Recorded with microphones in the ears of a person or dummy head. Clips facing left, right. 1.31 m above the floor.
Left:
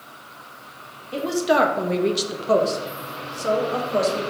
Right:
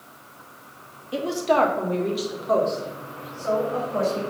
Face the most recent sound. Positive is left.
turn(degrees=50)  # may be behind; listen again after turning